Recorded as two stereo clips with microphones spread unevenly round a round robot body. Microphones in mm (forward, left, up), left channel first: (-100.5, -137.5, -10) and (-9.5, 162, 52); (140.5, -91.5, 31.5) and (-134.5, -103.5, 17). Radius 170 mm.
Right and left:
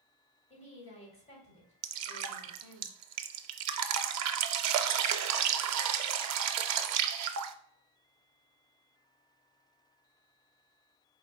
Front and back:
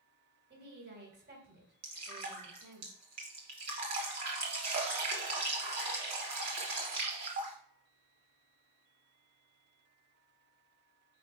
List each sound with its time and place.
0.5 s a woman speaking: 155° right, 1.8 m
1.8 s dripping: 115° left, 0.5 m